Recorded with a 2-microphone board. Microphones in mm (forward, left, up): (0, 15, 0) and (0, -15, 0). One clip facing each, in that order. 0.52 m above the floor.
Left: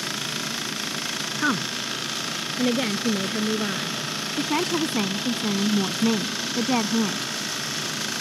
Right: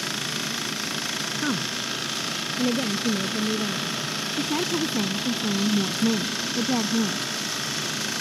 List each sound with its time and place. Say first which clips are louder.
1.4 s a woman speaking: left 5 dB; 75° left (ahead or behind); by 4.0 s 85° left
4.4 s a woman speaking: left 2 dB; 75° left (ahead or behind)